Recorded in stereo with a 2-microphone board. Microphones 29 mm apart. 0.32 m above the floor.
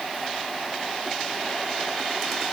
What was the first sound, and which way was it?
Only background noise.